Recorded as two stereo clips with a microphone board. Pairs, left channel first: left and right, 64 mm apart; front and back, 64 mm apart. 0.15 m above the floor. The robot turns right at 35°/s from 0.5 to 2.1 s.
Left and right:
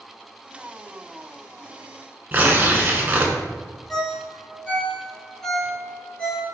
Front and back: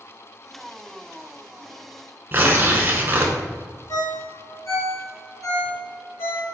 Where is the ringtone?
15° left, 1.8 m.